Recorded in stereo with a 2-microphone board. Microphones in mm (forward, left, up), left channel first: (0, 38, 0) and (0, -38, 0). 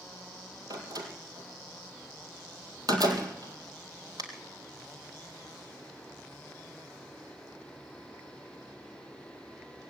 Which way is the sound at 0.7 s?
55° right (ahead or behind).